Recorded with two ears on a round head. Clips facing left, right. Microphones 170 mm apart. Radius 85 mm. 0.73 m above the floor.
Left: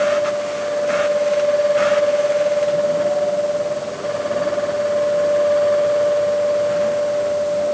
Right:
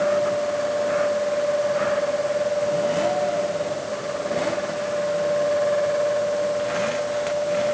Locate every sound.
Only background noise.